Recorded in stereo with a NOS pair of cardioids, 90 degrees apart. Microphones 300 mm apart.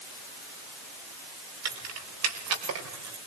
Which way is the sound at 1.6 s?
60° right.